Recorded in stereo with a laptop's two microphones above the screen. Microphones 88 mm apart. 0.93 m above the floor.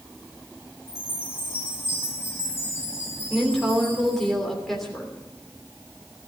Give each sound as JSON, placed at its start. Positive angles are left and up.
{"t": 0.9, "sound": "a chime", "side_deg": 30, "distance_m": 7.0}
{"t": 3.3, "sound": "a woman speaking", "side_deg": 5, "distance_m": 3.0}